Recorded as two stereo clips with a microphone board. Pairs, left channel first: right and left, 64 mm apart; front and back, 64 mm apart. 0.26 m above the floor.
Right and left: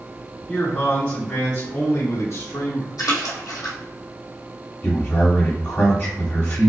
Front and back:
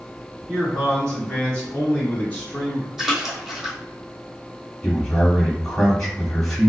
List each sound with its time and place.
0.5 s a man speaking: 100° right, 1.6 m; by 2.9 s 60° right, 3 m
3.0 s a splash: 95° right, 1.9 m
4.8 s a man speaking: 85° right, 1.6 m